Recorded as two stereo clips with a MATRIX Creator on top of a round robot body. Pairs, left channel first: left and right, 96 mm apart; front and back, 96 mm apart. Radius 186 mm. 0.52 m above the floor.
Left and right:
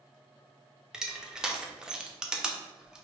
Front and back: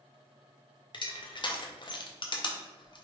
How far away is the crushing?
About 0.8 m.